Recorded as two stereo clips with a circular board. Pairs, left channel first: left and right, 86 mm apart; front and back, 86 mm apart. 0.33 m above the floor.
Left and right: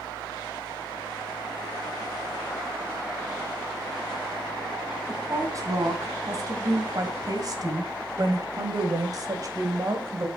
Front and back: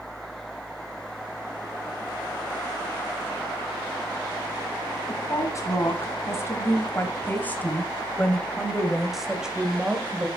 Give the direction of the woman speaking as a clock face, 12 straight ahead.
1 o'clock.